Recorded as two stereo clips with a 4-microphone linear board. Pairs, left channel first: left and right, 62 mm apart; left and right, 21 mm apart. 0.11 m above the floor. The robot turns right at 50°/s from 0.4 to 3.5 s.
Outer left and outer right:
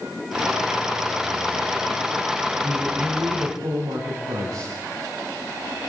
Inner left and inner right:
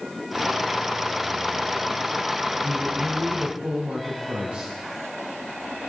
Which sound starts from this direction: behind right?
A man speaking, at 2.6 s.